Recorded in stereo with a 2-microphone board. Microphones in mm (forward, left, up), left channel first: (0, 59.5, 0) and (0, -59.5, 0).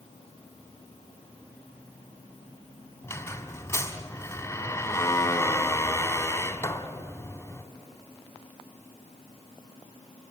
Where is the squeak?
25° left (ahead or behind), 1.2 m.